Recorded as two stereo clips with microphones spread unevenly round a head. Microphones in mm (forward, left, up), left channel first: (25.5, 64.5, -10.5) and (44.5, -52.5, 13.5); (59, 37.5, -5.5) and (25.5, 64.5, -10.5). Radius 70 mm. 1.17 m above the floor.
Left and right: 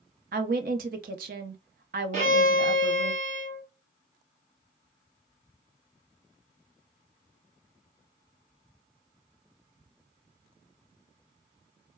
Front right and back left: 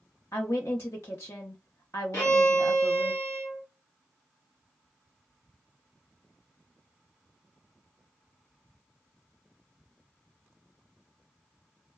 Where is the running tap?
No running tap in this recording.